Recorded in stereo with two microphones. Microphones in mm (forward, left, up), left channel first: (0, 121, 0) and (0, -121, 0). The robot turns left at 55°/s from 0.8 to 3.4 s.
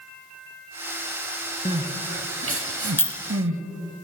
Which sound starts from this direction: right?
Crying, at 1.6 s.